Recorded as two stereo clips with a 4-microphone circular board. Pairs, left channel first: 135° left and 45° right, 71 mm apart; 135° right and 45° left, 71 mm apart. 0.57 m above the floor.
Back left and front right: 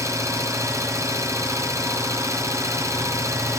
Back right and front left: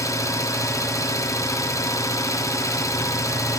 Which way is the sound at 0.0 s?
90° right.